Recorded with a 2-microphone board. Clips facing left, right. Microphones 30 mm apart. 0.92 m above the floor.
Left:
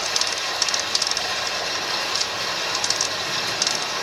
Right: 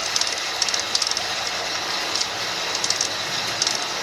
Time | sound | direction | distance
0.0 | running water | 5° left (ahead or behind) | 1.4 m